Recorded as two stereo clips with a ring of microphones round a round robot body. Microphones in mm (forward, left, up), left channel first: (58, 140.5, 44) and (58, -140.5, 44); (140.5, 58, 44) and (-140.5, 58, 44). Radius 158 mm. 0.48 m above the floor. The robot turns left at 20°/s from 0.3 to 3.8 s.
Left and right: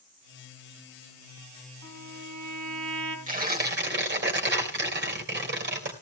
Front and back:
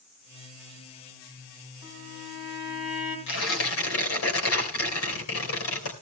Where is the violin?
50° right, 3.5 m; by 3.2 s 75° right, 3.5 m.